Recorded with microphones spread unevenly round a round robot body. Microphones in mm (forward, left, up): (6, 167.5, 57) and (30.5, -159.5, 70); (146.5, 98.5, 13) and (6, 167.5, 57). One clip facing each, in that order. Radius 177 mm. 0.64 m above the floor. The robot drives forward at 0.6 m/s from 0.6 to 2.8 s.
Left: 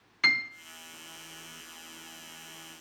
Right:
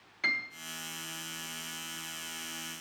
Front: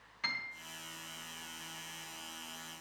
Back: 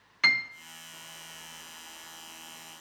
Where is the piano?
155° left, 0.6 m.